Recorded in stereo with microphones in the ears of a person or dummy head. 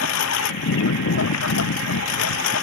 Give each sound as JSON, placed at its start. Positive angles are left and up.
{"t": 0.0, "sound": "a lawn mower", "side_deg": 85}